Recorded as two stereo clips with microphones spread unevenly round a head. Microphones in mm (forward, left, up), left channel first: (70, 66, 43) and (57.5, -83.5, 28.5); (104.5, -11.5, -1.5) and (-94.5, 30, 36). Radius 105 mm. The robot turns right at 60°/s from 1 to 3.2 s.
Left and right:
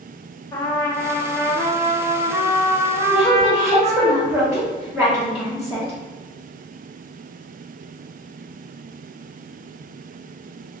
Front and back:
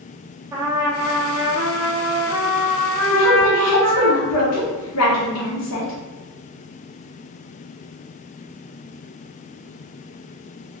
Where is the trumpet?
135° left, 0.6 m; by 4.1 s 90° right, 0.6 m.